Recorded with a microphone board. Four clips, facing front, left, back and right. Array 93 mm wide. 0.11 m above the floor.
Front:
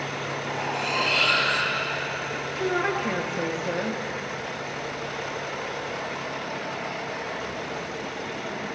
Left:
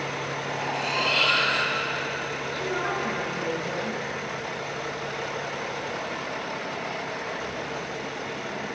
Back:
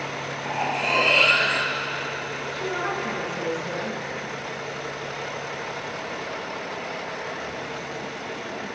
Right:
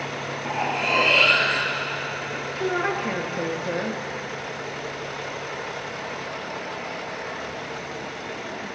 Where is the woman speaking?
55° right, 1.9 m.